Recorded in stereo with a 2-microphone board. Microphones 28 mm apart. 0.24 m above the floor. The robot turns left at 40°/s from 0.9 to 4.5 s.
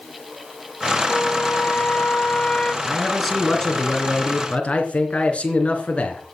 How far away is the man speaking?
About 3 m.